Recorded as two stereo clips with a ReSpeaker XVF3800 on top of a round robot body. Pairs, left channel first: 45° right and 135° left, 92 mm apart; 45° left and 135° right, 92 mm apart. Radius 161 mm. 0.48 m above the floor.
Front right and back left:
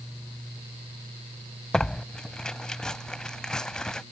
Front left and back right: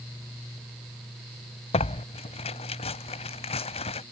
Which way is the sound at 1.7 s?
40° left.